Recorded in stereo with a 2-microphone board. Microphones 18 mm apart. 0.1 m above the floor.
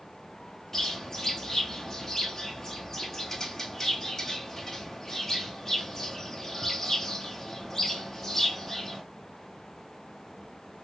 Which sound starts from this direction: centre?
A bird, at 0.7 s.